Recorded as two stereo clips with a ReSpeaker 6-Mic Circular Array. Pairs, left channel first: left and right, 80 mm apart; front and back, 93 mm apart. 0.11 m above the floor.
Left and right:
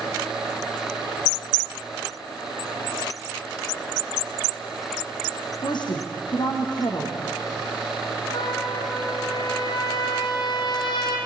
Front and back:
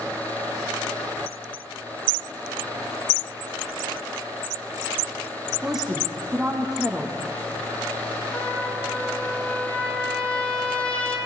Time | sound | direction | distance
5.6 | a woman speaking | 95° left | 4 m
8.3 | a trumpet | 75° left | 4 m